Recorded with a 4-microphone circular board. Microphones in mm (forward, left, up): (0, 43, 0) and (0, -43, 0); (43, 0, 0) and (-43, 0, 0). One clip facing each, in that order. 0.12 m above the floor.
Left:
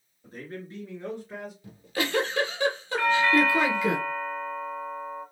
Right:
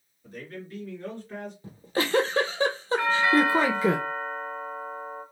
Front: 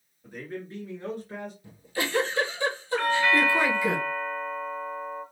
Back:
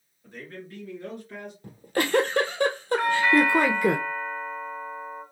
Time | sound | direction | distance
0.2 | a man speaking | 70° left | 2.0 m
1.6 | a giggle | 145° right | 0.7 m
3.0 | a doorbell | 125° right | 1.6 m